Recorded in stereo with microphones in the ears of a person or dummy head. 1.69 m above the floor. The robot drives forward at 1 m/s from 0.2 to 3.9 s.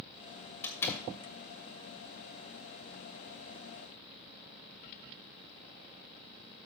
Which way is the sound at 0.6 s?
15° left (ahead or behind).